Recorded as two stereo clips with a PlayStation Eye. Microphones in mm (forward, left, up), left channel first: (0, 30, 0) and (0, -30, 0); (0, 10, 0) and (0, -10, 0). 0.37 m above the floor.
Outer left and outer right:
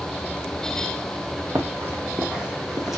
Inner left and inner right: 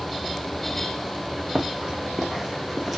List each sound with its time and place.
1.6 s running footsteps: 50° right (ahead or behind), 0.6 m; by 3.0 s 5° right (ahead or behind), 1.0 m